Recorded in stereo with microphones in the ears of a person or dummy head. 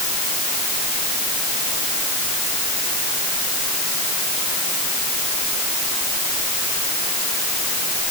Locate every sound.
Only background noise.